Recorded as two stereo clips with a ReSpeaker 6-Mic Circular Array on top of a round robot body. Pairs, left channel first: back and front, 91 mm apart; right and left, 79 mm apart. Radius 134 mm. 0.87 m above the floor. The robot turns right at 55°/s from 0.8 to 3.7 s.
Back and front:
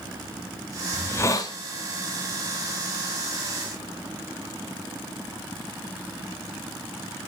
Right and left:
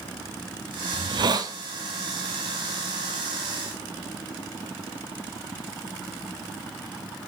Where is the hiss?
105° left, 1.0 m; by 1.6 s 135° left, 1.0 m.